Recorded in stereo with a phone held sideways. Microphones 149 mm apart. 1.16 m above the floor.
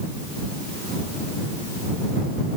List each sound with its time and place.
Only background noise.